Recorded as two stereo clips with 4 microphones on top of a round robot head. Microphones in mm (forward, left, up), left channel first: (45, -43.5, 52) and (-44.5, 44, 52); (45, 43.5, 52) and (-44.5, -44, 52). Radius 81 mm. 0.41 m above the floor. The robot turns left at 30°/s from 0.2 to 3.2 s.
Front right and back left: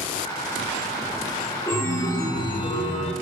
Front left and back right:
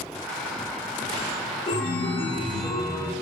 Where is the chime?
25° left, 1.4 m; by 3.1 s 15° right, 1.4 m.